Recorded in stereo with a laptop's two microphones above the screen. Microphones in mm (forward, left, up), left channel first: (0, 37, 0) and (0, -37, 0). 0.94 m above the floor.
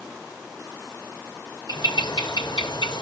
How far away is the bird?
About 0.8 m.